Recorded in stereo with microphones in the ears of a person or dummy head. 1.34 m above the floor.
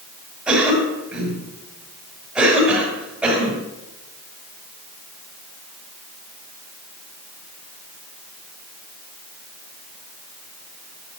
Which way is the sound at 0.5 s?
5° right (ahead or behind).